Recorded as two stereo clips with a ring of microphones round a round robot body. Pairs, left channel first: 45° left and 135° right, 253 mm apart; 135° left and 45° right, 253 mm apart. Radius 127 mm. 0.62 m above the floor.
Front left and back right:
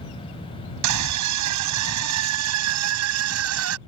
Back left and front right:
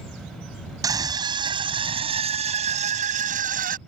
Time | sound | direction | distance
0.8 | a scream | 120° right | ?